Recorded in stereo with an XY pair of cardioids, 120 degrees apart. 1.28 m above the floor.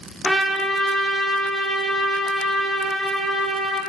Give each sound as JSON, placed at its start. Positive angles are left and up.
{"t": 0.2, "sound": "a trumpet", "azimuth_deg": 0, "distance_m": 0.7}